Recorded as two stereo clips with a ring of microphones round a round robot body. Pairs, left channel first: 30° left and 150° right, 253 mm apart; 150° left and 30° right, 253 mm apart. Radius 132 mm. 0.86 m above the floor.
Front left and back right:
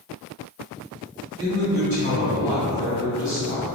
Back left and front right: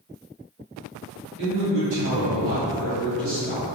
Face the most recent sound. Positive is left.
turn(degrees=-30)